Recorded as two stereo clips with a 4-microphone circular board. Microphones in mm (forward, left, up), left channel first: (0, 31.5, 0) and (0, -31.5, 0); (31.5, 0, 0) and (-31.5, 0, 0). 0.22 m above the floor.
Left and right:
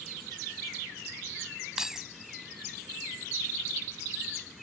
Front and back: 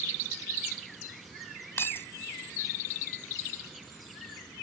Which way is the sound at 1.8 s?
15° right.